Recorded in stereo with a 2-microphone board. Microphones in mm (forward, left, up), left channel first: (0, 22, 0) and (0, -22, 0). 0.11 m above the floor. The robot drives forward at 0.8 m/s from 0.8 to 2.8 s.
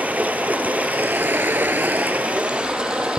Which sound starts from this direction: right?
Running water, at 0.0 s.